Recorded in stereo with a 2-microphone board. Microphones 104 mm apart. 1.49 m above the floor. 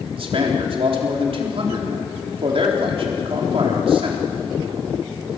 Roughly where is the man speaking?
Right.